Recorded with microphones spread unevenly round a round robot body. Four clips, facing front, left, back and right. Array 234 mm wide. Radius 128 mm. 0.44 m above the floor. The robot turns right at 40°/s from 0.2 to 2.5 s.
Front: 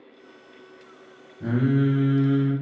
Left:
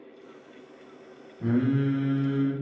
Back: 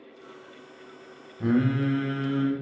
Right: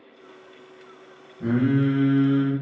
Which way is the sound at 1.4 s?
155° right.